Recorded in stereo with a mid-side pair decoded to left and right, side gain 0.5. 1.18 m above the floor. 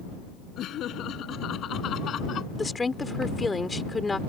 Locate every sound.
0.6 s laughter: 60° left; by 2.5 s 50° left
2.6 s a woman speaking: 20° left